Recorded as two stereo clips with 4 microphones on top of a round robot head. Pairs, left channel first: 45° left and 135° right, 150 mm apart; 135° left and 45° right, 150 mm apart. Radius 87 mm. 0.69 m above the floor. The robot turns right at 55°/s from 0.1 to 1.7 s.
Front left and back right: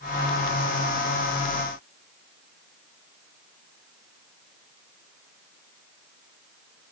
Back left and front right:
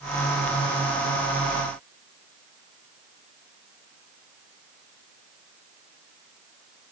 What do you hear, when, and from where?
Only background noise.